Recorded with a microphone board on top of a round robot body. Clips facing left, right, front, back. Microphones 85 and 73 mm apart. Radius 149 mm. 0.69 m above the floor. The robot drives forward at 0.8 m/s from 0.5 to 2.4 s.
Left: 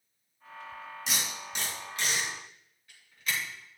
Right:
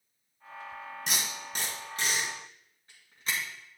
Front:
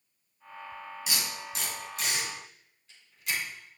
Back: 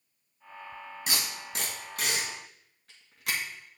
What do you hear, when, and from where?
1.1 s tape being pulled: 135° right, 2.0 m; by 3.4 s 150° right, 3 m